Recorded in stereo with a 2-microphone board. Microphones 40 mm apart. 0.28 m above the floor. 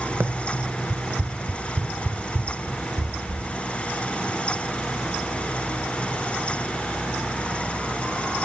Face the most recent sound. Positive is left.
turn(degrees=-45)  # may be behind; listen again after turning